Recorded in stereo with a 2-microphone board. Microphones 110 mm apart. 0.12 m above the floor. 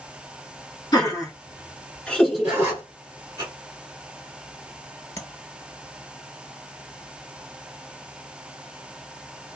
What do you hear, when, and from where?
0.9 s laughter: 35° left (ahead or behind), 1.5 m; by 3.4 s 30° right (ahead or behind), 1.3 m
2.4 s a zipper: 25° right (ahead or behind), 1.3 m
5.2 s tapping: 30° left (ahead or behind), 1.4 m